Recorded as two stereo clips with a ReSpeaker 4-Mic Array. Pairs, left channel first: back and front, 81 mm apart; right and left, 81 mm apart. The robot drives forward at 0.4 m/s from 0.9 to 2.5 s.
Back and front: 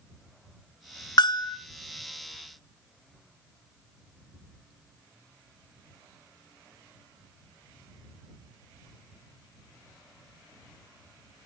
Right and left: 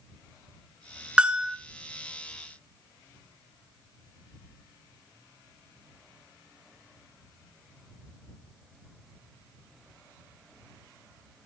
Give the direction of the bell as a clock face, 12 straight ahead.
6 o'clock.